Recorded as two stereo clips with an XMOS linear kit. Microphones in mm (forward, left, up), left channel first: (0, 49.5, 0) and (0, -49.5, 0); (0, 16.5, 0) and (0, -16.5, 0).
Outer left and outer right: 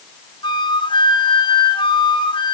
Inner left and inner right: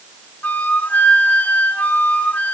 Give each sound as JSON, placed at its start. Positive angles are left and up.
{"t": 0.4, "sound": "a flute", "side_deg": 55, "distance_m": 2.5}